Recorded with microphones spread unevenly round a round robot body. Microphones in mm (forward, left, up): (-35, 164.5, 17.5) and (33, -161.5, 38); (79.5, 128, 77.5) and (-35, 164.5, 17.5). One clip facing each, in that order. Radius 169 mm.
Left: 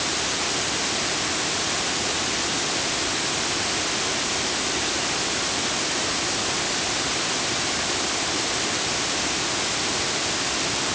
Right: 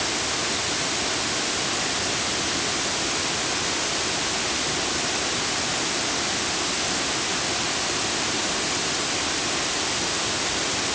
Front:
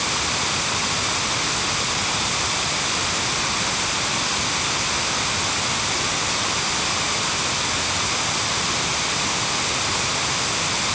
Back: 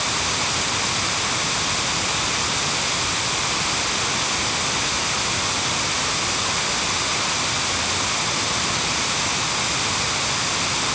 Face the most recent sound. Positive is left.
No sound to turn to.